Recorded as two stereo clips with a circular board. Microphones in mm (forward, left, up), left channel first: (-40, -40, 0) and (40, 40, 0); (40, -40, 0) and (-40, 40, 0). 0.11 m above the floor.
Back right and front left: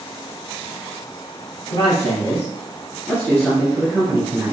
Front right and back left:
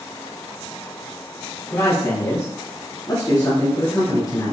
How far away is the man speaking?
About 2 m.